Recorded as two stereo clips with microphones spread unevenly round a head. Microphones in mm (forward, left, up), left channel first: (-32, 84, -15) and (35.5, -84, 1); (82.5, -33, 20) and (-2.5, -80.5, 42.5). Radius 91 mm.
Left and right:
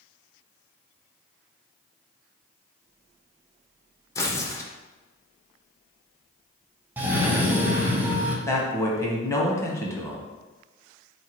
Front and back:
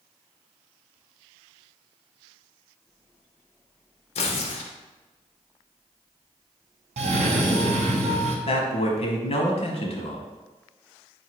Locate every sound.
4.2 s tearing paper: 35° left, 0.6 m
7.0 s a cough: 150° right, 0.9 m
8.5 s a man speaking: 35° left, 1.0 m